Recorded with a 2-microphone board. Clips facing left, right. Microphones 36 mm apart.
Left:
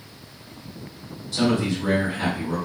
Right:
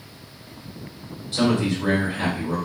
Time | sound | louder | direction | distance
1.3 | a man speaking | right 1 dB | 35° right (ahead or behind) | 1.5 m